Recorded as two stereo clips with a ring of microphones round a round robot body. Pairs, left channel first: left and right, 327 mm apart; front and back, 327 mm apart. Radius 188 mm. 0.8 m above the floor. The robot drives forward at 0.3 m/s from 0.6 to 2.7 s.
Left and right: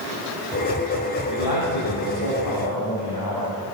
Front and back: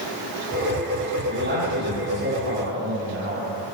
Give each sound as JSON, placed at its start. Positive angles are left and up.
{"t": 1.3, "sound": "a man speaking", "azimuth_deg": 120, "distance_m": 7.0}